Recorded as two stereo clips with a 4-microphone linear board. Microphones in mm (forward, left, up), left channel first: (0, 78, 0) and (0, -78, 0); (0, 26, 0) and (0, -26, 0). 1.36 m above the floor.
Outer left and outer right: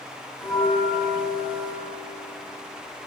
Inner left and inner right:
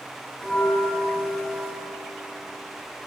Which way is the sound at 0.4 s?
5° right (ahead or behind).